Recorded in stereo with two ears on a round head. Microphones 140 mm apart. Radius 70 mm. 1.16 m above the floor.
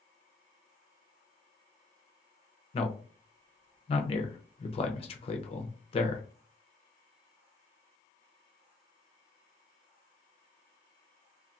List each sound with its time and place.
2.7 s a man speaking: 40° left (ahead or behind), 0.6 m